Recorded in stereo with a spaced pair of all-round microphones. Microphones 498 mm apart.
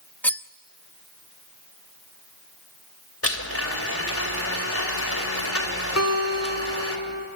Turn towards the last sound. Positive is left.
turn(degrees=35)  # may be behind; listen again after turning